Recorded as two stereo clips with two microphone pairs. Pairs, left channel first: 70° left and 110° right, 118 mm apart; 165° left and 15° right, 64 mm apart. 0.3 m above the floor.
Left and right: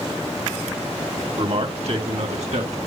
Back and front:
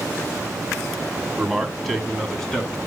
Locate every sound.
1.4 s a man speaking: 100° right, 1.7 m; by 2.8 s 120° right, 2.5 m